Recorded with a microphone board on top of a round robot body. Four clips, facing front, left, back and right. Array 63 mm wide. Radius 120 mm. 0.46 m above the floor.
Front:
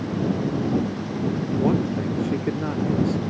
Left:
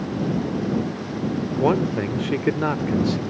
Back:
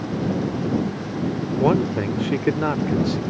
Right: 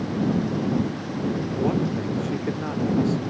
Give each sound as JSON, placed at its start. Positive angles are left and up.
{"t": 1.6, "sound": "a man speaking", "azimuth_deg": 130}